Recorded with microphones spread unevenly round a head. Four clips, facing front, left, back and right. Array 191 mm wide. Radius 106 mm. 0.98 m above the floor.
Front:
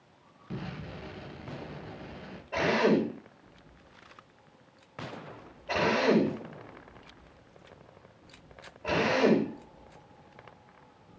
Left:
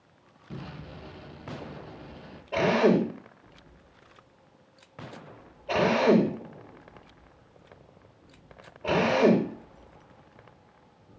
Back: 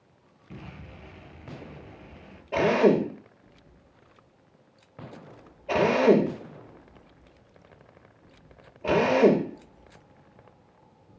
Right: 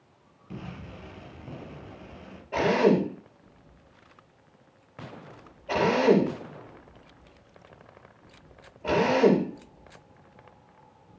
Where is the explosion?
Straight ahead, 4 m.